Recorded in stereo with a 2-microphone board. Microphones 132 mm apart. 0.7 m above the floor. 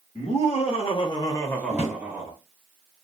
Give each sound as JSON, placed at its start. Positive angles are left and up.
{"t": 0.1, "sound": "laughter", "side_deg": 55, "distance_m": 1.3}
{"t": 1.7, "sound": "a drawer", "side_deg": 60, "distance_m": 1.4}